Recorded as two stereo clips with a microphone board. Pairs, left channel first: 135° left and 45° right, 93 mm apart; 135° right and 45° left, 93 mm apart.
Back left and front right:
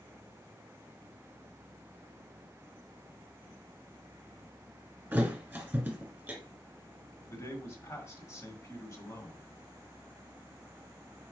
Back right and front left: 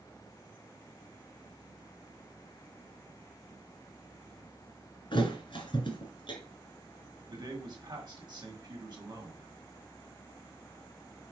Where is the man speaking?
85° left, 1.8 m.